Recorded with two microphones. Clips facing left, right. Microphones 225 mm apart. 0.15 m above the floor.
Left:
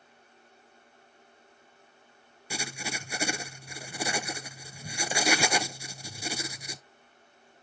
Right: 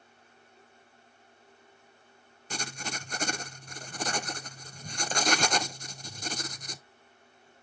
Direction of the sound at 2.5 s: 10° left (ahead or behind).